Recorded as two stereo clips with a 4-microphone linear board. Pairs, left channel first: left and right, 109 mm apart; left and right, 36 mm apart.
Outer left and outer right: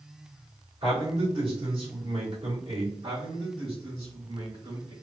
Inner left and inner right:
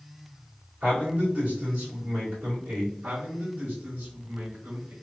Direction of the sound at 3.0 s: 60° right (ahead or behind).